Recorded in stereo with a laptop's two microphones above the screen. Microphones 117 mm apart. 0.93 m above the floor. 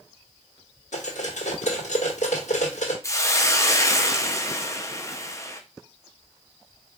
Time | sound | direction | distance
0.9 | cutlery clinking | 85° left | 1.4 m
3.0 | a hiss | 25° left (ahead or behind) | 0.7 m